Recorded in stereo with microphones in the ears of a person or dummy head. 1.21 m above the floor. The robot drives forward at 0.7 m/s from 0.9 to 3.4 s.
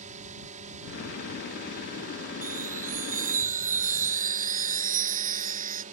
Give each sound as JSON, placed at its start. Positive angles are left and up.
{"t": 0.0, "sound": "a drone", "side_deg": -45}
{"t": 2.4, "sound": "a chime", "side_deg": -40}